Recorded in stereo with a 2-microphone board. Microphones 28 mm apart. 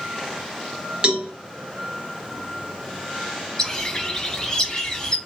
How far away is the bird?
About 0.9 m.